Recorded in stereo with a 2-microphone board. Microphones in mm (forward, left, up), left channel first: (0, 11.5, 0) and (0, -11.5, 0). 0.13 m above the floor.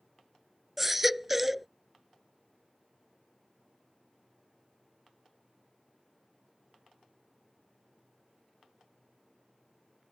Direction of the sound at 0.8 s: 10° right (ahead or behind).